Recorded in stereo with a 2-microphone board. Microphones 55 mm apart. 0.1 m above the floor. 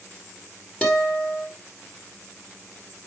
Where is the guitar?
20° left (ahead or behind), 2.5 m.